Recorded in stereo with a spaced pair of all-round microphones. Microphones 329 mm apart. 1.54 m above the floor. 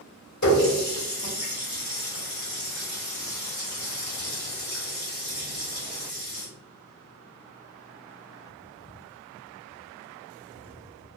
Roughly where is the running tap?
Left.